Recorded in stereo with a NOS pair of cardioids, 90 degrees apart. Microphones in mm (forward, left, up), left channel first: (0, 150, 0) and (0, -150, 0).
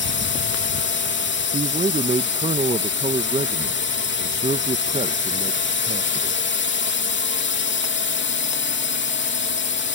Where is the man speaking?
20° right.